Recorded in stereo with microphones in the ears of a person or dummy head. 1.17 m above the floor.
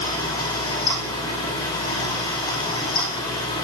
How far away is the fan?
About 6 m.